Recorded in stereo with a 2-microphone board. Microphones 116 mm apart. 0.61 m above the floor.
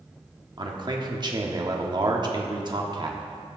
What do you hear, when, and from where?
0.6 s a man speaking: 40° right (ahead or behind), 1.2 m